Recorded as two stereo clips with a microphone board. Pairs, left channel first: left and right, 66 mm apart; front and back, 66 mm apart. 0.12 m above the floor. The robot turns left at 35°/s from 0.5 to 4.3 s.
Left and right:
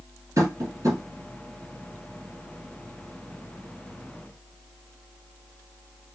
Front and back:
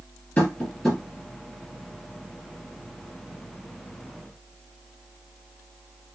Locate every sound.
0.4 s tapping: 65° right, 2 m; by 1.0 s 85° right, 2 m